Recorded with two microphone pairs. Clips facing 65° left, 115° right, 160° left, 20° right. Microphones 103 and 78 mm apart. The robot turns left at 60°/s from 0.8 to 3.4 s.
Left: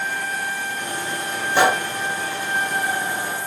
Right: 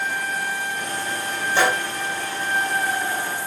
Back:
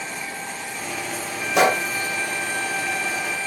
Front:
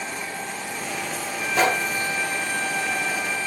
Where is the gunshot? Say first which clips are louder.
Left 3 dB, back 3 dB; 140° left, 1.2 m; by 1.9 s 125° left, 1.2 m.